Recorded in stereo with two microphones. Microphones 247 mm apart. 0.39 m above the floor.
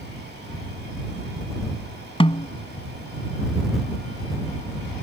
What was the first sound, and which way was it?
A snare drum, 20° left (ahead or behind).